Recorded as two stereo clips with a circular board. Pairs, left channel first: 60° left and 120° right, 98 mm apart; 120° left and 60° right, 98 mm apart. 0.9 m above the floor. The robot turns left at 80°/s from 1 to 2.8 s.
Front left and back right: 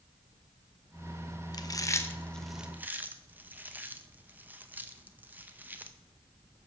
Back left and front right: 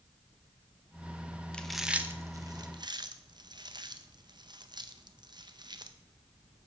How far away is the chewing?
About 0.6 m.